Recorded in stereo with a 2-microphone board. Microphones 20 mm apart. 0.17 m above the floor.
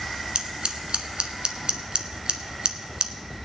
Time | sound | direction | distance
0.3 | scissors | 55° right (ahead or behind) | 0.9 m